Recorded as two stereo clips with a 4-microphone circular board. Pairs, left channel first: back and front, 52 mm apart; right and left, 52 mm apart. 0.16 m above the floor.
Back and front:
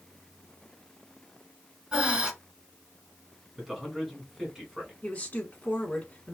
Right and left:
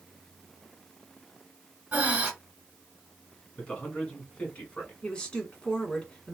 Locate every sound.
1.9 s breathing: 55° left, 1.4 m
3.6 s a man speaking: 95° right, 1.8 m
5.0 s a woman speaking: 150° right, 1.4 m